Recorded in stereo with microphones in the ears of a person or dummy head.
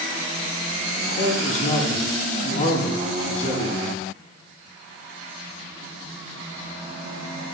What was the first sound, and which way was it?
A man speaking, 40° left (ahead or behind).